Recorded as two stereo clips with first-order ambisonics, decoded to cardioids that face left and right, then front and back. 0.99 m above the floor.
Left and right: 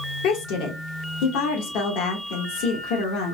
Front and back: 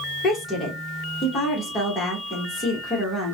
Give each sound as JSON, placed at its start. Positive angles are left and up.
{"t": 0.2, "sound": "a woman speaking", "azimuth_deg": 70, "distance_m": 1.1}